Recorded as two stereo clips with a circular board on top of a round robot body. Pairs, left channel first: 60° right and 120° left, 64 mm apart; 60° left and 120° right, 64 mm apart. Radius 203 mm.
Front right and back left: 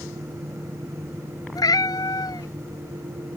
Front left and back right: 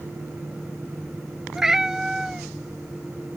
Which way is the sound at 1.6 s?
40° right.